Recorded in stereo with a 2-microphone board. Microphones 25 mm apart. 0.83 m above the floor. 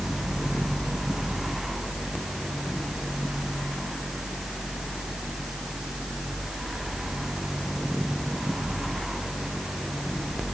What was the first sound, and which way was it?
Only background noise.